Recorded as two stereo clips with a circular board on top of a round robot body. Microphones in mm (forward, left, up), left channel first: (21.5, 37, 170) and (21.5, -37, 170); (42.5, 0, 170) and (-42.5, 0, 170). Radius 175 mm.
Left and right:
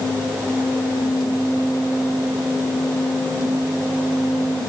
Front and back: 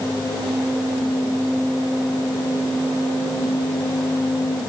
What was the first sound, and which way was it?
Only background noise.